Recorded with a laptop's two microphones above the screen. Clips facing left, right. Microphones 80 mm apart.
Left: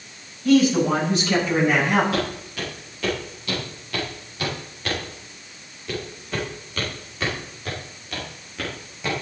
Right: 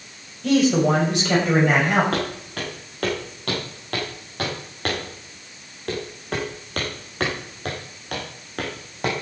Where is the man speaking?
80° right, 6 m; by 2.0 s 75° right (ahead or behind), 7 m.